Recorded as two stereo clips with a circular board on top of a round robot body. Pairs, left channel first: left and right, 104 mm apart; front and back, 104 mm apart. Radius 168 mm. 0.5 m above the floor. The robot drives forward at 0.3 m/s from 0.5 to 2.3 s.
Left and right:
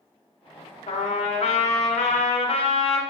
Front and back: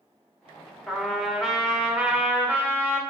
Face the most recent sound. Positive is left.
turn(degrees=105)